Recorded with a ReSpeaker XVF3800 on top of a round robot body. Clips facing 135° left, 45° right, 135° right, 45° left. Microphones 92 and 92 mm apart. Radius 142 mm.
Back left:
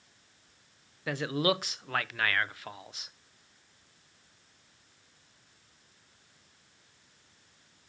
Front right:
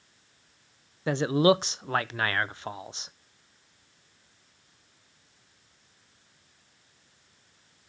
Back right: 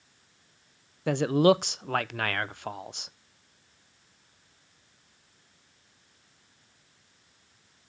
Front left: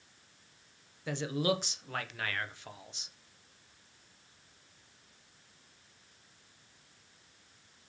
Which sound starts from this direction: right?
A man speaking, at 1.1 s.